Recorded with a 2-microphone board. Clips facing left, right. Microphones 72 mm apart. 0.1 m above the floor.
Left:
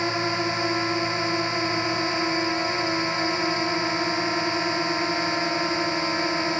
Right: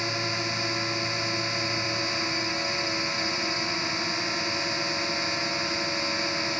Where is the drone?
25° left (ahead or behind).